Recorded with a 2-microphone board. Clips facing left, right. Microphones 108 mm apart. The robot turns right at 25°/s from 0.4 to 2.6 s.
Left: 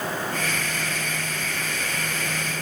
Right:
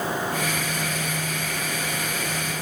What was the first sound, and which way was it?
Only background noise.